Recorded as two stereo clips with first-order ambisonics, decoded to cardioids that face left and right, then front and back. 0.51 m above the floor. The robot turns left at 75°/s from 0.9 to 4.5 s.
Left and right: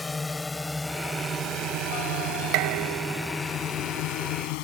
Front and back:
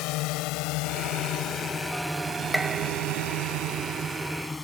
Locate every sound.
0.0 s a drone: 10° left; by 4.6 s 80° left
2.5 s dishes clattering: 90° right; by 4.1 s 150° left